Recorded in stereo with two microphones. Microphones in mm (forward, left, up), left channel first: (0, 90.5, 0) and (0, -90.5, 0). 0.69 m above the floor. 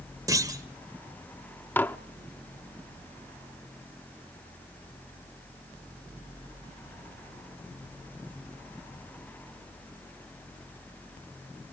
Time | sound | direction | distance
0.3 | a clunk | 20° right (ahead or behind) | 1.2 m
1.8 | dishes clattering | 10° left (ahead or behind) | 0.7 m